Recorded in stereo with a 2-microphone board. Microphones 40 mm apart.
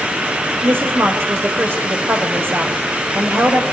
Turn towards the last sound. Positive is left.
turn(degrees=-60)  # may be behind; listen again after turning